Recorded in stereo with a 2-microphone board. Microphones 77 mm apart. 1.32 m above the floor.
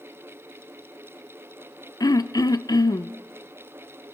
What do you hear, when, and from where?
2.0 s throat clearing: 55° left (ahead or behind), 0.6 m